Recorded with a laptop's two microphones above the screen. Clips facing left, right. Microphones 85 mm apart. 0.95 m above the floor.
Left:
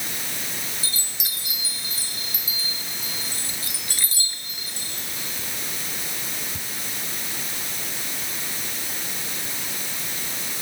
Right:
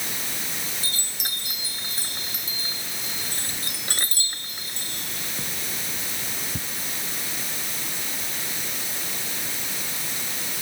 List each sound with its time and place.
0.8 s a chime: 50° right (ahead or behind)